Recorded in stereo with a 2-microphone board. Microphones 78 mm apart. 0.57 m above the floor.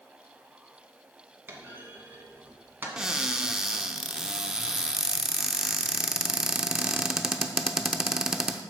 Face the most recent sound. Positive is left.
turn(degrees=-10)  # may be behind; listen again after turning